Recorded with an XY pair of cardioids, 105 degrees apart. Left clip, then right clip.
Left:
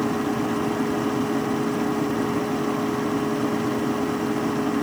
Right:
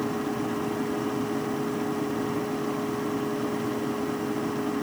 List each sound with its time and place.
0.0 s a machine running: 35° left, 1.0 m